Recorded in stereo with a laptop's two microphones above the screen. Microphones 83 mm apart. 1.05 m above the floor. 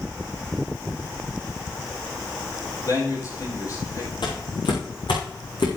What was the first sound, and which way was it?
A man speaking, 45° left (ahead or behind).